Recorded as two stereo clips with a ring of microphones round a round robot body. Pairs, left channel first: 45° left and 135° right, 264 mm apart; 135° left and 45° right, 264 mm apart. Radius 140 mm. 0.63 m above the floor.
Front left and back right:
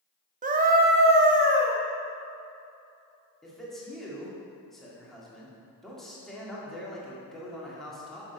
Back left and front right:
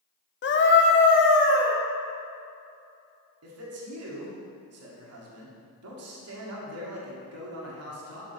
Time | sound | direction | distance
0.4 | a scream | 170° left | 0.9 m
3.4 | a man speaking | 45° right | 1.9 m